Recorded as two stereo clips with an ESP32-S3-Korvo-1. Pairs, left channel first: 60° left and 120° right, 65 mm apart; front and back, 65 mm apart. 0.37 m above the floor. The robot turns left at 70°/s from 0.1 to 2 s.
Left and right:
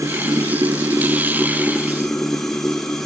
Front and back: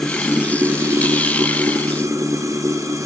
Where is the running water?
85° right, 2.5 m; by 3.1 s 145° left, 2.5 m.